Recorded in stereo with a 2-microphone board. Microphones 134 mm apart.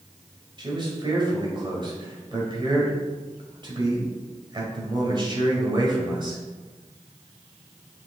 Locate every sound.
0.6 s a man speaking: 35° right (ahead or behind), 1.9 m